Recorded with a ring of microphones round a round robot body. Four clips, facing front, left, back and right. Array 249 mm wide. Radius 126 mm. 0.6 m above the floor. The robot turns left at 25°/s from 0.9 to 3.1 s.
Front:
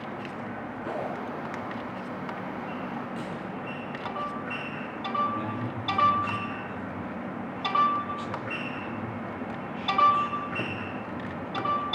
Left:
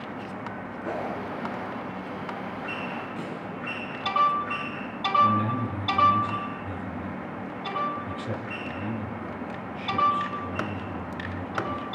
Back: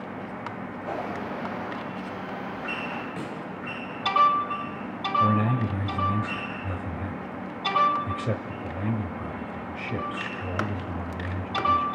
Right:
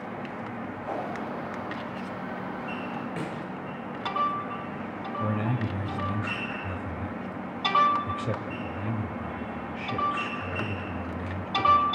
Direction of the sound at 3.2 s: 110° right.